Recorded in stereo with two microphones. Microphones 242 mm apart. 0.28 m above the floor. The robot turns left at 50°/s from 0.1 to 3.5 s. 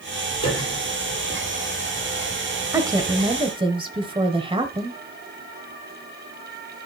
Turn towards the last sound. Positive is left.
turn(degrees=-20)  # may be behind; listen again after turning